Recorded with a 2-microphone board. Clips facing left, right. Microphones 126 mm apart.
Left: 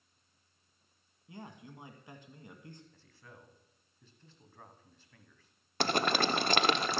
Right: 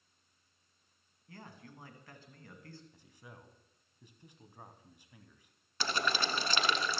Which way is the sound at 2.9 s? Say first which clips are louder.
Right 1 dB; 15° right (ahead or behind).